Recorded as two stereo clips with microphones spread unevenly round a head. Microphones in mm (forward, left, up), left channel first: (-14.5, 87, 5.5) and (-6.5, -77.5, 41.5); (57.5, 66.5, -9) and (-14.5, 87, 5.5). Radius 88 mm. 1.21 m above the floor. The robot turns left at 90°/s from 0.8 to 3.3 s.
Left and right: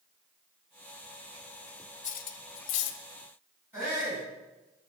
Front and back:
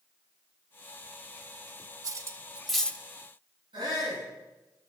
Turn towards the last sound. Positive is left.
turn(degrees=-165)